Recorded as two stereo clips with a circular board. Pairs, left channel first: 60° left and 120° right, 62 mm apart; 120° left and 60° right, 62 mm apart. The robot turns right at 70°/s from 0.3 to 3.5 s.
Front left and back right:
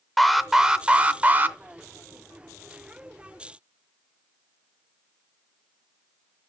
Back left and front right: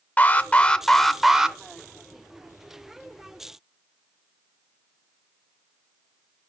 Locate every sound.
0.2 s an alarm: 150° left, 0.6 m; by 1.6 s 125° right, 0.6 m